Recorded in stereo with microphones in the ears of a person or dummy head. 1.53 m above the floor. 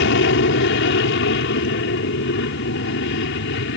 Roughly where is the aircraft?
Left.